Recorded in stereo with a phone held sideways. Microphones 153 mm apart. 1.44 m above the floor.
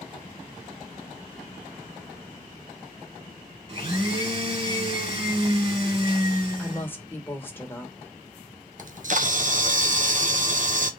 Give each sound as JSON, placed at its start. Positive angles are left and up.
{"t": 3.7, "sound": "a blender", "side_deg": -40, "distance_m": 2.5}
{"t": 6.6, "sound": "a woman speaking", "side_deg": 15, "distance_m": 1.3}
{"t": 8.8, "sound": "a camera shutter", "side_deg": -55, "distance_m": 0.7}